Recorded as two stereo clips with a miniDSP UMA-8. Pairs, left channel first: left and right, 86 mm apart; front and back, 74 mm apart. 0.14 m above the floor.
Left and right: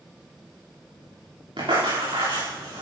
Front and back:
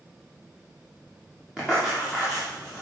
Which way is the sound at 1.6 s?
95° right.